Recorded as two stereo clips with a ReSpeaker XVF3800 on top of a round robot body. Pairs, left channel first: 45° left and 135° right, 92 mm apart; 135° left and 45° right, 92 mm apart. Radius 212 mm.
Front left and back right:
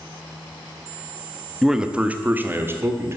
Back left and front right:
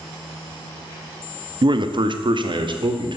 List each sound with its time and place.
1.6 s a man speaking: 50° right, 1.1 m; by 3.2 s 75° right, 2 m